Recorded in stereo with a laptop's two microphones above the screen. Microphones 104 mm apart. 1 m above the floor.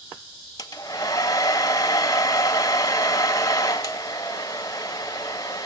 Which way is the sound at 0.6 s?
30° left (ahead or behind).